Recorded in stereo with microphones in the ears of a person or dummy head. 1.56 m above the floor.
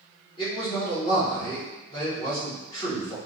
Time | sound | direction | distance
0.4 | a man speaking | 30° left (ahead or behind) | 1.7 m